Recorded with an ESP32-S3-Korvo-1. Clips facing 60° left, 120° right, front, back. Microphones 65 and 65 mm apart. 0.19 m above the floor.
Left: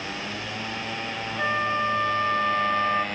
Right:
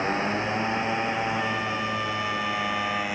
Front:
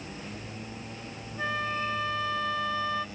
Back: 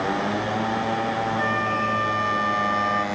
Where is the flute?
120° left.